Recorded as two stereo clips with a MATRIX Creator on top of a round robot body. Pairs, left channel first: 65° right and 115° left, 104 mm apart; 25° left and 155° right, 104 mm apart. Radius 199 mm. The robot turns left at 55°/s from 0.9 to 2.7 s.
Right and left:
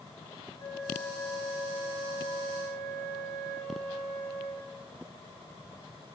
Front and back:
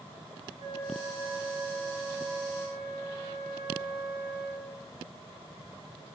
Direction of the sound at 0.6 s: 130° right.